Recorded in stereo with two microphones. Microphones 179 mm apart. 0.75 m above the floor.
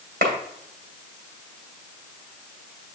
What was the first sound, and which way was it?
A clap, 75° right (ahead or behind).